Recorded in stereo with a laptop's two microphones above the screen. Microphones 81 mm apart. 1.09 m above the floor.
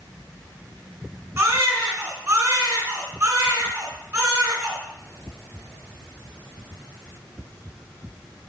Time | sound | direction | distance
1.4 | a baby crying | 40° right (ahead or behind) | 3 m